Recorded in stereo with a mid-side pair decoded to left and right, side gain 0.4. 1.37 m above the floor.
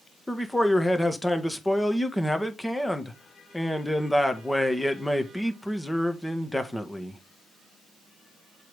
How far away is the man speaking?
About 1.5 m.